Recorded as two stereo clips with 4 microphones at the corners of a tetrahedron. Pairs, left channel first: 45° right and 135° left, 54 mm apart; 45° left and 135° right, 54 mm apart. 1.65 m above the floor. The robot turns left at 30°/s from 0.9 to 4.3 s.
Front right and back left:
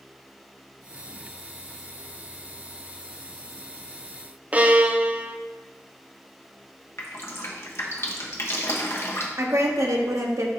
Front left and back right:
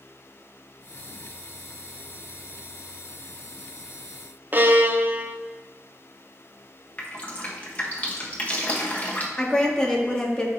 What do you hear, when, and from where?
4.5 s a violin: 170° right, 0.5 m
7.0 s dripping: 15° right, 1.1 m
9.4 s a woman speaking: 120° left, 1.3 m